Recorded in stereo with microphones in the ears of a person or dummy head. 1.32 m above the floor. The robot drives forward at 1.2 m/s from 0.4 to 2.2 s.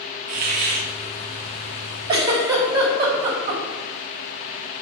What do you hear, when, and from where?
0.3 s a hiss: 50° right (ahead or behind), 0.8 m; by 0.9 s 35° right (ahead or behind), 1.0 m
2.1 s a giggle: 25° right (ahead or behind), 1.5 m